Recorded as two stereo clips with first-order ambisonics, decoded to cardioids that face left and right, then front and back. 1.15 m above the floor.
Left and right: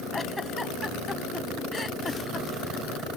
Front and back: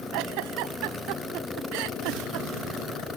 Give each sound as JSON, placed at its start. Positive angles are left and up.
{"t": 0.1, "sound": "a giggle", "azimuth_deg": 170}